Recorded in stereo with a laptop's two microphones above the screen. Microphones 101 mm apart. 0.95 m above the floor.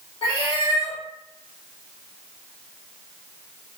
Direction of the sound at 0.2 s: 60° left (ahead or behind).